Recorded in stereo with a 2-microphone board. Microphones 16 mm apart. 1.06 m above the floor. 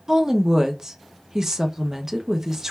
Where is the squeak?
I don't hear a squeak.